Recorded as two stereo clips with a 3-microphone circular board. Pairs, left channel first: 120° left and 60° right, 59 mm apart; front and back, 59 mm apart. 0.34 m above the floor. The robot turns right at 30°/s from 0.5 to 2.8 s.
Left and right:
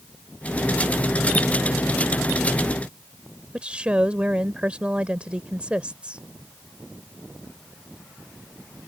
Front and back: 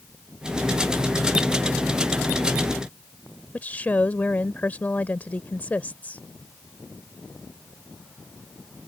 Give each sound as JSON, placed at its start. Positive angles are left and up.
{"t": 3.5, "sound": "a woman speaking", "azimuth_deg": -15}